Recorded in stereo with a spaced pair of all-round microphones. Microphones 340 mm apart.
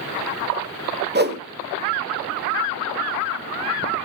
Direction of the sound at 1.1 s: 30° right (ahead or behind).